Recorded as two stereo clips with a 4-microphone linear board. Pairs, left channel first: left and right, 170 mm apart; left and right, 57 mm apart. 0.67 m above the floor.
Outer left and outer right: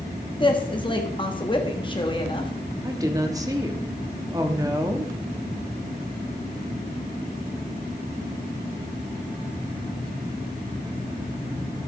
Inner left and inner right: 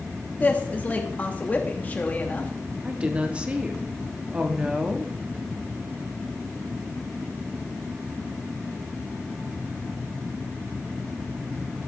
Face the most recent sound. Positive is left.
turn(degrees=-20)  # may be behind; listen again after turning